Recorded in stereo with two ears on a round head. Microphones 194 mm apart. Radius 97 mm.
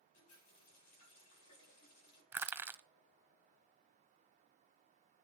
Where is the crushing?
10° right (ahead or behind), 0.7 m.